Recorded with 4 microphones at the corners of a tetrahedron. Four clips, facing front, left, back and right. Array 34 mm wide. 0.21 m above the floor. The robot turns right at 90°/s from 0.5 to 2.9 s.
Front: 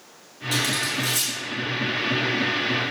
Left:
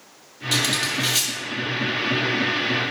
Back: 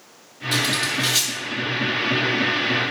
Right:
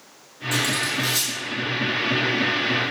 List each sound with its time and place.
0.5 s cutlery clinking: 85° left, 3 m; by 1.3 s 160° left, 3 m